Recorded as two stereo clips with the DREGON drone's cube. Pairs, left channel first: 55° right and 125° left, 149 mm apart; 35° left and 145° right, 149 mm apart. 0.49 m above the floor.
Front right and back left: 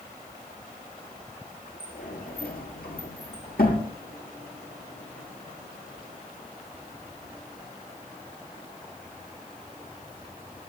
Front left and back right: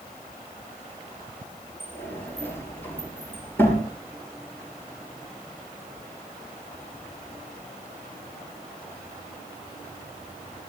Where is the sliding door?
40° right, 7 m.